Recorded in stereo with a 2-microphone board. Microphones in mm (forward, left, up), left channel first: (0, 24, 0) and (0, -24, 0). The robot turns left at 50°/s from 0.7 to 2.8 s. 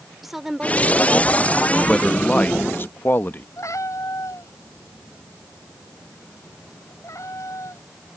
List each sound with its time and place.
0.2 s a woman speaking: 5° right; by 1.6 s 50° right
1.9 s a man speaking: 170° left; by 3.5 s 120° left
3.6 s a cat meowing: 85° left